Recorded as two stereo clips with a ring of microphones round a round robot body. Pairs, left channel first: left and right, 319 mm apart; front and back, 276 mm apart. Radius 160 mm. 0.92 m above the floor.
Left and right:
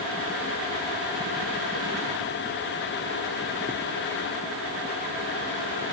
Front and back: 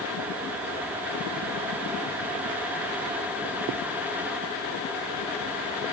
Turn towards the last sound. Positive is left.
No sound to turn to.